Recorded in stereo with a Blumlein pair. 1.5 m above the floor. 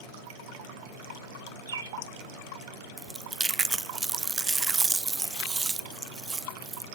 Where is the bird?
65° right, 1.1 m.